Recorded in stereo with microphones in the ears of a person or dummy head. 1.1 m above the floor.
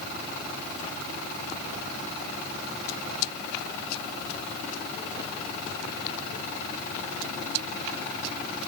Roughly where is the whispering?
I don't hear whispering.